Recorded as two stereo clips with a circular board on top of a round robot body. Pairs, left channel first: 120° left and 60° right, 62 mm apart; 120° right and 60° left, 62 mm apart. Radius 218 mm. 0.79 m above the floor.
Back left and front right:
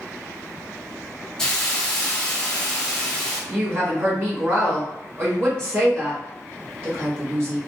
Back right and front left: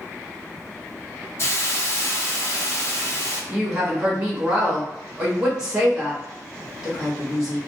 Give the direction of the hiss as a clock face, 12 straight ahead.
5 o'clock.